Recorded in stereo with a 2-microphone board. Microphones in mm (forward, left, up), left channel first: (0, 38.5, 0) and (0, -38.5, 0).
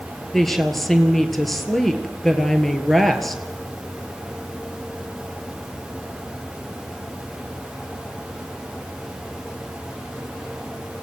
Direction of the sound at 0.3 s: 5° left (ahead or behind).